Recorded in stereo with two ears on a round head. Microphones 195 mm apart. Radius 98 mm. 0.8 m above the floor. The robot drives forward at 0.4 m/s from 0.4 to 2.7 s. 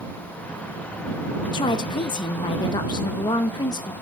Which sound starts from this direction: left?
A woman speaking, at 1.5 s.